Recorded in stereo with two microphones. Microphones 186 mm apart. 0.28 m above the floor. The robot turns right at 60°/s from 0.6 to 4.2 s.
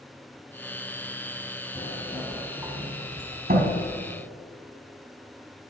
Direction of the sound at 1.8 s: 30° left (ahead or behind).